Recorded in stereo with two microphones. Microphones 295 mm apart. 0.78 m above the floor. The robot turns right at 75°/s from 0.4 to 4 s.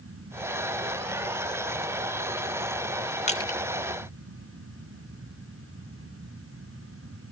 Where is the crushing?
25° left (ahead or behind), 1.2 m; by 3.6 s 5° left (ahead or behind), 1.2 m.